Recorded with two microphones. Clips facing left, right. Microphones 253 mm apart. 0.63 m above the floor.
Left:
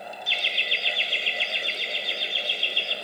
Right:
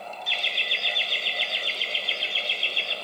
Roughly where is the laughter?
Right.